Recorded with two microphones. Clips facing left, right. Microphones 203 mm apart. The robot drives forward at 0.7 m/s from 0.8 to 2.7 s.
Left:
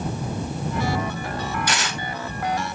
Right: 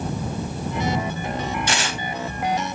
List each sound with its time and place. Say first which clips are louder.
1.7 s tearing paper: right 2 dB; 30° right (ahead or behind), 1.1 m